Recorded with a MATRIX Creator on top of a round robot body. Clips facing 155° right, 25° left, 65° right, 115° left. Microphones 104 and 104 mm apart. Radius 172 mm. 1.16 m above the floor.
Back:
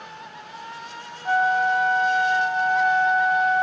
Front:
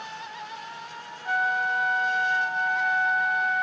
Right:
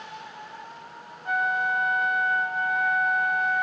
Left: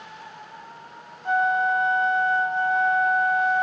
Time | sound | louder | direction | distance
1.2 | a flute | back 6 dB, left 5 dB | 160° left | 0.5 m